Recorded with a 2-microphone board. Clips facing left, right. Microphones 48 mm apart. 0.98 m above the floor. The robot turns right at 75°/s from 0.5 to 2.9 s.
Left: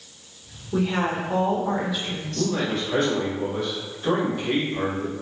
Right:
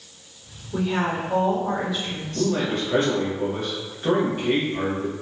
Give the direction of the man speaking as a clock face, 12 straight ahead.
5 o'clock.